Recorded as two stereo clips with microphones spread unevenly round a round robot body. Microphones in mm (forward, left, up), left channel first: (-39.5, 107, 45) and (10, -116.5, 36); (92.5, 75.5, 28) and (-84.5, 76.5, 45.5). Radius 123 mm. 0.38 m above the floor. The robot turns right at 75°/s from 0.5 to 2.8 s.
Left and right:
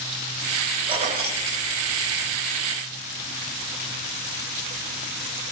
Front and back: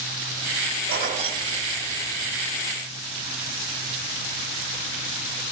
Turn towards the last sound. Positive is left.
turn(degrees=0)